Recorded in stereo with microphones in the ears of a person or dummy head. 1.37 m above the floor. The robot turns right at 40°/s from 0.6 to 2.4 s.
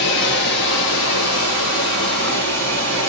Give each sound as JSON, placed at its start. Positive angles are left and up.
{"t": 0.0, "sound": "running water", "azimuth_deg": 60, "distance_m": 1.6}